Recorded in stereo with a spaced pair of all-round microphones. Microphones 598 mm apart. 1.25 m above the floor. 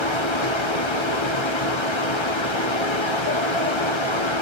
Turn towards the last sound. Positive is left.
turn(degrees=50)  # may be behind; listen again after turning